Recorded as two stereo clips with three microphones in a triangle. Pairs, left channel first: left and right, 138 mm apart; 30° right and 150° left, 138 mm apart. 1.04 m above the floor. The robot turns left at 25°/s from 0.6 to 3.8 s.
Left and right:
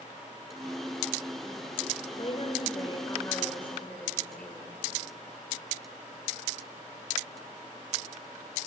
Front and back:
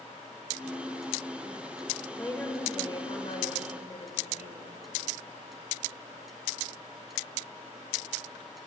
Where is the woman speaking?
50° left, 5 m; by 4.8 s 5° left, 5 m.